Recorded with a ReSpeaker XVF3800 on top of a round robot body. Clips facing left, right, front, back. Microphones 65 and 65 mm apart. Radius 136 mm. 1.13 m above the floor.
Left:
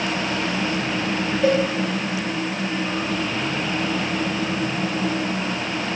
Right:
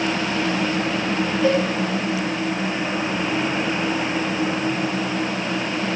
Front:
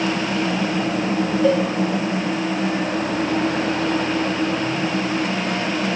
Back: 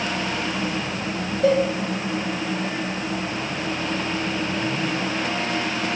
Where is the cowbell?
135° left, 3 m.